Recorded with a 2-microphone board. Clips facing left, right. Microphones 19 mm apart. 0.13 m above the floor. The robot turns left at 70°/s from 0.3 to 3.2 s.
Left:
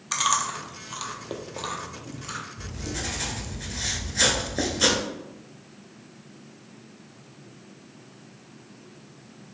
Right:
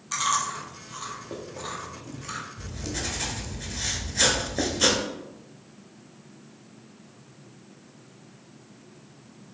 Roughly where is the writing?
Behind right.